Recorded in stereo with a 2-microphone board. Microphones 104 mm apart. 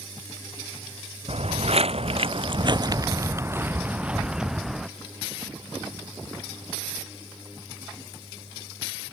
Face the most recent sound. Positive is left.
turn(degrees=0)  # may be behind; listen again after turning